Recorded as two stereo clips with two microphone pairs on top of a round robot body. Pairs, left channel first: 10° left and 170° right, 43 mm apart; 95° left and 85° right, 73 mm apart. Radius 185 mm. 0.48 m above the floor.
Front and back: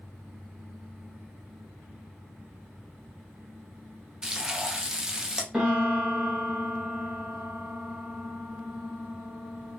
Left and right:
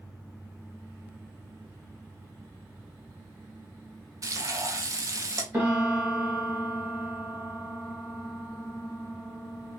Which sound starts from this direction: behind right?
A piano, at 5.5 s.